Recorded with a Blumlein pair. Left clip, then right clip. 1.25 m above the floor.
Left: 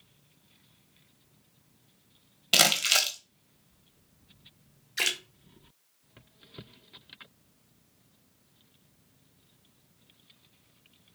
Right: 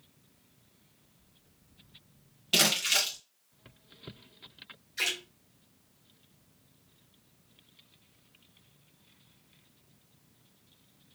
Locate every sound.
2.5 s crumpling: 70° left, 0.8 m
5.0 s a splash: 30° left, 0.7 m